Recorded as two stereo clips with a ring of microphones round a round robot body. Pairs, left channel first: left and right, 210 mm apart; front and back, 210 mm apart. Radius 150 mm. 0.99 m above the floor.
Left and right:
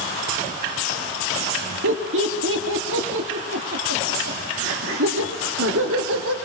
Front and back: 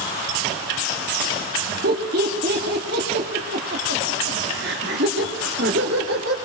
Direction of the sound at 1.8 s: 125° right.